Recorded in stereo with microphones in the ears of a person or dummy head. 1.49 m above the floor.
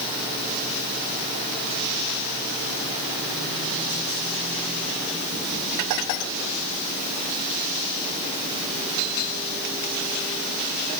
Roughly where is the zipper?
I don't hear a zipper.